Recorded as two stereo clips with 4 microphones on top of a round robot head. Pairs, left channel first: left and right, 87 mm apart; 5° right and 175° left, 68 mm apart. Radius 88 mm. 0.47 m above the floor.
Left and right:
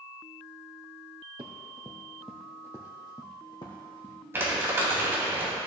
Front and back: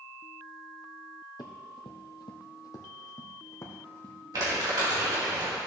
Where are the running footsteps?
55° right, 1.0 m; by 4.2 s 50° left, 2.0 m.